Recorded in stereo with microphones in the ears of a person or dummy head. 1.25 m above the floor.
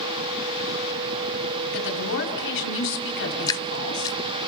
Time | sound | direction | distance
1.7 | a woman speaking | 60° left (ahead or behind) | 4 m
3.5 | dripping | 15° left (ahead or behind) | 0.6 m